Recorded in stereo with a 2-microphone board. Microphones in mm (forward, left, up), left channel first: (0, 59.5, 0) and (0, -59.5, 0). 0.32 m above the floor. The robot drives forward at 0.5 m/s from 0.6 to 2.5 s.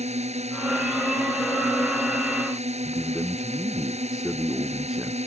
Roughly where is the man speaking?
Centre.